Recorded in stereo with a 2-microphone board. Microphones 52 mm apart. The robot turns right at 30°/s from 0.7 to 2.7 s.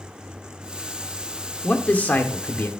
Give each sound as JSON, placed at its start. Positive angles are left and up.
{"t": 1.6, "sound": "a man speaking", "azimuth_deg": 45, "distance_m": 1.3}